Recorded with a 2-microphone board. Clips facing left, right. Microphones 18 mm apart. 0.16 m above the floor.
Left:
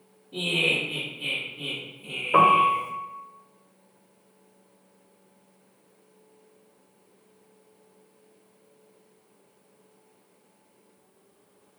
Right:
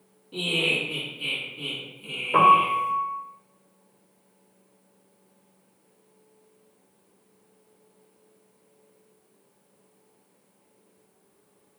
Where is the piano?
10° left (ahead or behind), 0.6 m.